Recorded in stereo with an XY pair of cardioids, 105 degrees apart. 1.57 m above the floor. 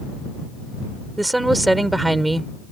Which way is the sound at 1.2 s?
15° right.